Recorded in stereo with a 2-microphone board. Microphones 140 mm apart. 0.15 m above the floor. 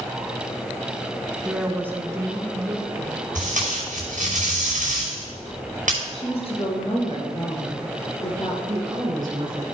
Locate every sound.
1.4 s a woman speaking: 5° right (ahead or behind), 1.2 m; by 3.2 s 40° right (ahead or behind), 1.8 m
3.4 s tape being pulled: 75° right (ahead or behind), 5 m
6.1 s a woman speaking: 50° left (ahead or behind), 2.5 m
8.7 s a woman speaking: 35° right (ahead or behind), 2.5 m